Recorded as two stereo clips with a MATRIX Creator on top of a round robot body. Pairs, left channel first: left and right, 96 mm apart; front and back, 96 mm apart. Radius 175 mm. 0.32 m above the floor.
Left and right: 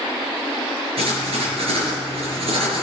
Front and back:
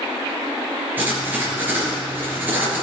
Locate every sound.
1.0 s writing: 110° right, 4.5 m